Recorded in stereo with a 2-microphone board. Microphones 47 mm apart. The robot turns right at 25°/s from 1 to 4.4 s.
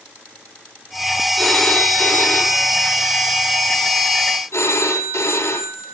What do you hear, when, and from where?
1.4 s a phone ringing: 5° left, 4.5 m; by 5.9 s 80° left, 4.5 m